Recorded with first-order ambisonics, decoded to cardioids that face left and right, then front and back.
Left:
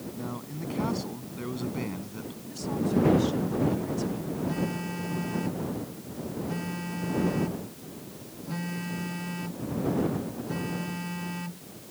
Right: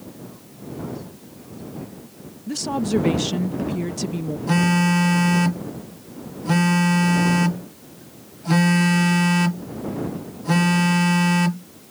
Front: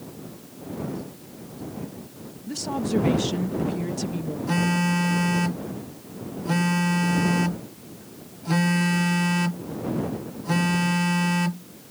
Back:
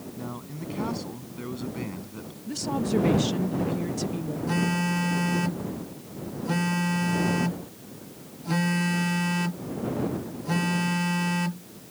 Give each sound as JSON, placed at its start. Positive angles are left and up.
{"t": 0.2, "sound": "a man speaking", "azimuth_deg": 145}
{"t": 2.5, "sound": "a woman speaking", "azimuth_deg": -85}
{"t": 4.5, "sound": "a phone buzzing", "azimuth_deg": -80}